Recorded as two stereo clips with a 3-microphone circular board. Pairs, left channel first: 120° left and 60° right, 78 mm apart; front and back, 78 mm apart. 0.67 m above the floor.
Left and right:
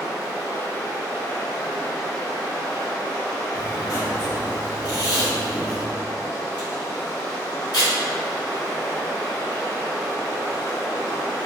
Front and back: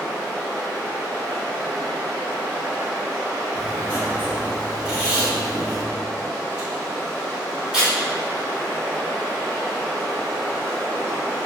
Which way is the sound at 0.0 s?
75° left.